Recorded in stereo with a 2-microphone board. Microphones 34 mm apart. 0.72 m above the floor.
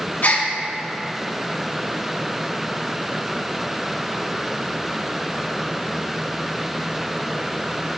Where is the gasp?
60° left (ahead or behind), 1.2 m.